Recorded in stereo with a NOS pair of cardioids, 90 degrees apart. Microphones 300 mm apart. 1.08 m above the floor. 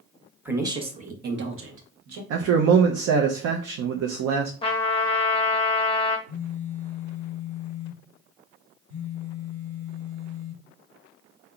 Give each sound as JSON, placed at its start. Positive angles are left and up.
{"t": 0.5, "sound": "a woman speaking", "azimuth_deg": -5, "distance_m": 1.0}
{"t": 2.3, "sound": "a man speaking", "azimuth_deg": -60, "distance_m": 0.6}
{"t": 4.6, "sound": "a trumpet", "azimuth_deg": 20, "distance_m": 0.7}
{"t": 6.3, "sound": "a phone buzzing", "azimuth_deg": -40, "distance_m": 1.8}